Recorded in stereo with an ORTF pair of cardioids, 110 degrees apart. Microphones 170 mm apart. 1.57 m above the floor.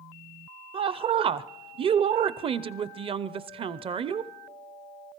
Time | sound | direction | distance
0.7 | a woman speaking | 35° right | 0.5 m